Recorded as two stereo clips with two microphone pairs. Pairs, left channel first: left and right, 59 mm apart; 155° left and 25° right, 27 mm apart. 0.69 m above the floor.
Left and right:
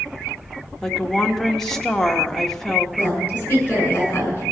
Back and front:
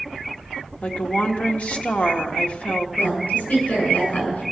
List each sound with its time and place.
0.8 s a woman speaking: 170° left, 1.3 m
3.0 s a woman speaking: 150° left, 7 m